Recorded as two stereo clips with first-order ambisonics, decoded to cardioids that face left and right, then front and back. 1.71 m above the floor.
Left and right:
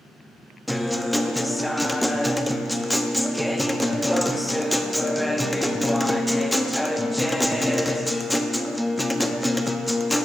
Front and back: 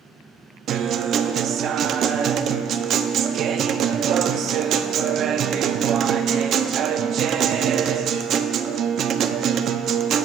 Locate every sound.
0.7 s a guitar: 175° left, 0.5 m